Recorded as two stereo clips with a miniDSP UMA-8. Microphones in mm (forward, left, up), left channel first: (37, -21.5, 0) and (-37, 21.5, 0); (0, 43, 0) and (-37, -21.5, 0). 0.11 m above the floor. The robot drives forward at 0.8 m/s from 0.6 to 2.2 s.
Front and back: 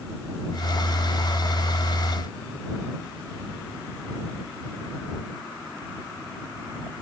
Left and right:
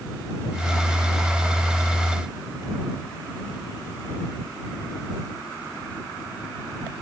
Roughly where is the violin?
I don't hear a violin.